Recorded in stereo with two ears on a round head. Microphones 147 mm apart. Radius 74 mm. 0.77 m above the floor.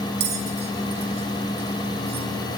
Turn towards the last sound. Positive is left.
turn(degrees=-70)  # may be behind; listen again after turning